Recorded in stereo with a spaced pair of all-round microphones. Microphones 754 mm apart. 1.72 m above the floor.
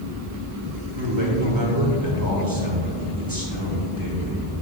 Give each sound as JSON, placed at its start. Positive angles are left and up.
{"t": 0.9, "sound": "a man speaking", "side_deg": -25, "distance_m": 2.5}